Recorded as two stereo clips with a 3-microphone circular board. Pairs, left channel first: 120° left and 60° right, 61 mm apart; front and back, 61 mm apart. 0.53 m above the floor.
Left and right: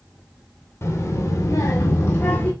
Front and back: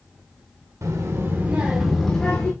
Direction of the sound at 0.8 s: 155° left.